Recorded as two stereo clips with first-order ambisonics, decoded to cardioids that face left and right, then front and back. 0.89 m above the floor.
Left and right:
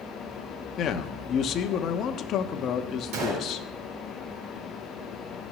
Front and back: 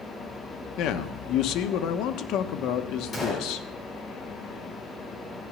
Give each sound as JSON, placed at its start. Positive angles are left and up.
{"t": 0.8, "sound": "a man speaking", "azimuth_deg": 35, "distance_m": 1.0}
{"t": 3.1, "sound": "a gunshot", "azimuth_deg": -70, "distance_m": 3.5}